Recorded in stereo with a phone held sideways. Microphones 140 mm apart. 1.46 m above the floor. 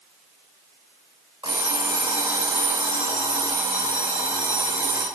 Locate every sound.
1.4 s an alarm clock: 35° right (ahead or behind), 2.5 m